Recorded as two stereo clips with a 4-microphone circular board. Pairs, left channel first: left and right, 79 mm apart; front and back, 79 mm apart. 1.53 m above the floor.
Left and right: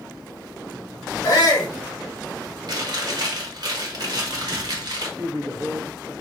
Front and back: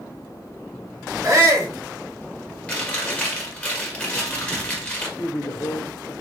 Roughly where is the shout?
Behind left.